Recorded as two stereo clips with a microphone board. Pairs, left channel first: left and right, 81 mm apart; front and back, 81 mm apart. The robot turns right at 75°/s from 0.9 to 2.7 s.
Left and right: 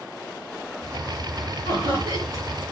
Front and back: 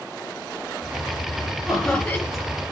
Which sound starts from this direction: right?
Laughter, at 1.6 s.